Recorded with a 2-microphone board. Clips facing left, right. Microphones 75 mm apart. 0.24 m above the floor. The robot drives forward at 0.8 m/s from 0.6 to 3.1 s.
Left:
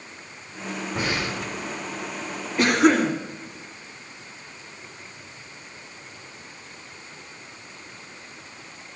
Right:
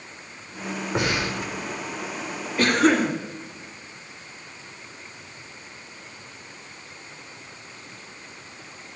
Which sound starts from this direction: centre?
A cough, at 2.6 s.